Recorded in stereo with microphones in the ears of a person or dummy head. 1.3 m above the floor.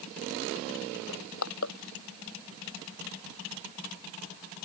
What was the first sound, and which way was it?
Crushing, 85° left.